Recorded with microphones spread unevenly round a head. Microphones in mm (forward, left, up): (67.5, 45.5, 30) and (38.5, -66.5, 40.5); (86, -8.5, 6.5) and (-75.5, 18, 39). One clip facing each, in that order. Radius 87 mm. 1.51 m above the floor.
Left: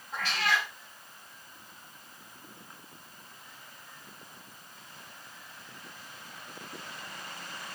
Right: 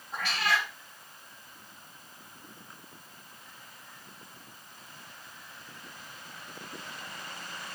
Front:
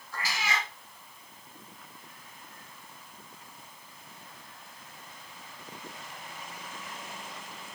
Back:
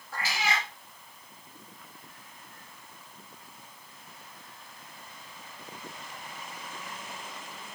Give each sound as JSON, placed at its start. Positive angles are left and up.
{"t": 0.1, "sound": "a cat meowing", "azimuth_deg": 180, "distance_m": 2.5}